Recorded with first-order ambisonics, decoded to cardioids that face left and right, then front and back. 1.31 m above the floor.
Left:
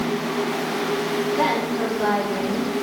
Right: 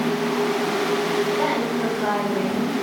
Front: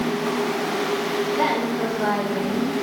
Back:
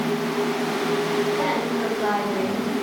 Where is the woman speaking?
40° left, 4 m.